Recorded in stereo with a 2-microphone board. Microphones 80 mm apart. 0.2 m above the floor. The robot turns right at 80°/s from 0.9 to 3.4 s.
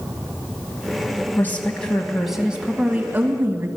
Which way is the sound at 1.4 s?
25° left (ahead or behind).